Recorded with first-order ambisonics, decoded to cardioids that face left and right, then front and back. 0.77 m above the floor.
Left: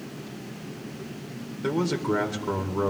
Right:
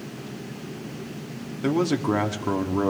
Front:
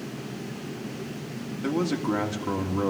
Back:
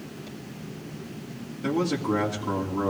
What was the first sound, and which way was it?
A man speaking, 80° right.